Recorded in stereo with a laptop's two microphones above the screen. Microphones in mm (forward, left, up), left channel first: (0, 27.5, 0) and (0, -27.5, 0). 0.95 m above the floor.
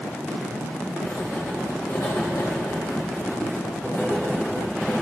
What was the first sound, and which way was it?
Writing, 70° left (ahead or behind).